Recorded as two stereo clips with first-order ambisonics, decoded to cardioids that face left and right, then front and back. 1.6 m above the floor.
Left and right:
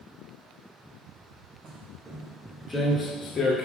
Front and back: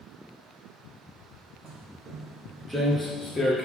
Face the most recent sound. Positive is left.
turn(degrees=50)